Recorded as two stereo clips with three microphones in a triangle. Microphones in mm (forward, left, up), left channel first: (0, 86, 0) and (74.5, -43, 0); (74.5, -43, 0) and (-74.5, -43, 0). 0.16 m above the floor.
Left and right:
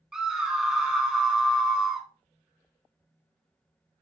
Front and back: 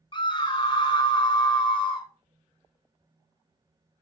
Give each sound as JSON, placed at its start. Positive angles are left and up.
{"t": 0.1, "sound": "a scream", "azimuth_deg": 25, "distance_m": 1.2}